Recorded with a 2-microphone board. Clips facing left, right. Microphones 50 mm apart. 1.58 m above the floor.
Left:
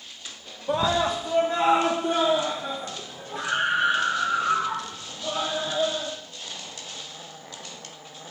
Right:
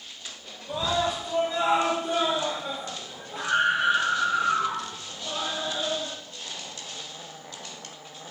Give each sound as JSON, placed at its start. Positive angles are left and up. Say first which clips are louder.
{"t": 0.7, "sound": "a scream", "louder": "left 3 dB", "side_deg": 65, "distance_m": 1.1}